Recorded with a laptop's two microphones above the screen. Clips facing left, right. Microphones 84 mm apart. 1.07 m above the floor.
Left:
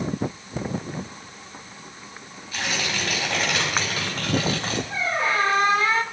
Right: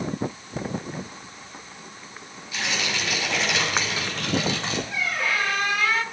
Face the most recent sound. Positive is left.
turn(degrees=30)  # may be behind; listen again after turning